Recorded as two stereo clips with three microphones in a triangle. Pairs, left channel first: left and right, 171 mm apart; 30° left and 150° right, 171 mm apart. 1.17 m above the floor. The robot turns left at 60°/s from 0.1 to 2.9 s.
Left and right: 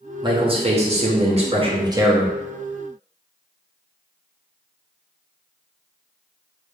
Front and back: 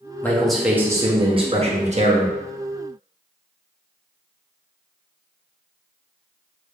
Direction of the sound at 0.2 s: 40° right.